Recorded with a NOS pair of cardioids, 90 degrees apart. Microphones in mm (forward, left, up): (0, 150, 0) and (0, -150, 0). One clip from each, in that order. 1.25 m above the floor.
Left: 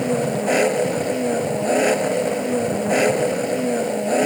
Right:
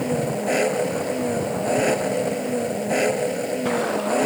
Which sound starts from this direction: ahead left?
An engine running, at 0.0 s.